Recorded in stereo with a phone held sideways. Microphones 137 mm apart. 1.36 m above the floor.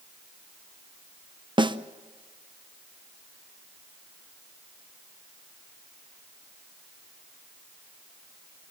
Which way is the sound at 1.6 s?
35° right (ahead or behind).